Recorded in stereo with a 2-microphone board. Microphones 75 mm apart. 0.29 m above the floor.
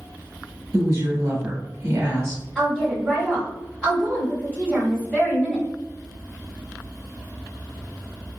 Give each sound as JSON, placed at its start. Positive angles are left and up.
{"t": 0.7, "sound": "a woman speaking", "side_deg": -40, "distance_m": 1.2}
{"t": 2.5, "sound": "a woman speaking", "side_deg": 10, "distance_m": 1.5}